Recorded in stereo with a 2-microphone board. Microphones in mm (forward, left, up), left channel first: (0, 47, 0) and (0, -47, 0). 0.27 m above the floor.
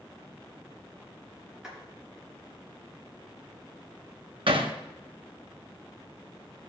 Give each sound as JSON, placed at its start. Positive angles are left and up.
{"t": 1.6, "sound": "a clap", "side_deg": -10, "distance_m": 4.0}
{"t": 4.5, "sound": "hammering", "side_deg": -70, "distance_m": 1.2}